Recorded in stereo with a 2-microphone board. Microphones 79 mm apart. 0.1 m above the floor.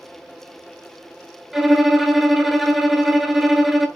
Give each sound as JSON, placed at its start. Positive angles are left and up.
{"t": 1.5, "sound": "a violin", "side_deg": 0, "distance_m": 0.5}